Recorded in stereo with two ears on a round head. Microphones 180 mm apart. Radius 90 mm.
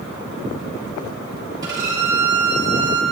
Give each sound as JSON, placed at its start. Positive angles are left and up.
{"t": 1.6, "sound": "a violin", "side_deg": -20, "distance_m": 3.0}